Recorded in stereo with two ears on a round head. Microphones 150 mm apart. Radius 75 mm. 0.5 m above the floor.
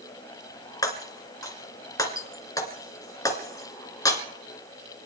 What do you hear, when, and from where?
0.8 s breaking glass: 20° left (ahead or behind), 2 m